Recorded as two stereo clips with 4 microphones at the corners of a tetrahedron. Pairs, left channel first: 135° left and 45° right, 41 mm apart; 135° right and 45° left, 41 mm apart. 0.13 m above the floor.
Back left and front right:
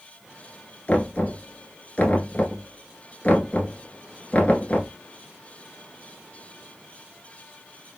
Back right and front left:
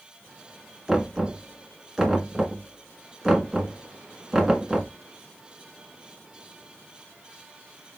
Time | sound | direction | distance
0.9 | knocking | 115° left | 1.1 m